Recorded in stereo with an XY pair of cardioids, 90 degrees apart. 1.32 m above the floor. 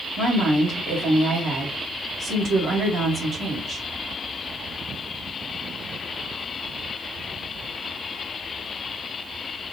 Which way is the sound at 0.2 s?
55° right.